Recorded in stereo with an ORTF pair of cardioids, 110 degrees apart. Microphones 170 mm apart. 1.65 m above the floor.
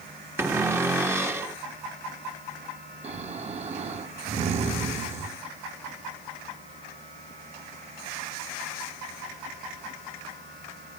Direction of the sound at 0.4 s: 15° right.